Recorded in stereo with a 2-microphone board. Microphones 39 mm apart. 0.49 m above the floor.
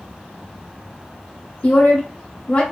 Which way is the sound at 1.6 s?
40° left (ahead or behind).